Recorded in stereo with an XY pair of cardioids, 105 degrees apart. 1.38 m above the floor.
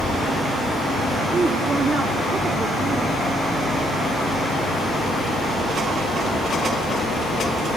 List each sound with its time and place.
1.3 s a woman speaking: 30° right, 3 m